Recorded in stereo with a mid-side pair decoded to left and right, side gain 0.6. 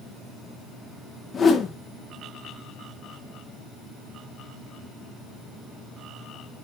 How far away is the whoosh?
About 1.9 m.